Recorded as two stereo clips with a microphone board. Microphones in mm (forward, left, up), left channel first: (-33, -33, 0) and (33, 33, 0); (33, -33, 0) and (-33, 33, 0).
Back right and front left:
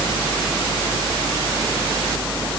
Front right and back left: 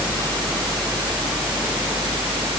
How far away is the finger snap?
No finger snap in this recording.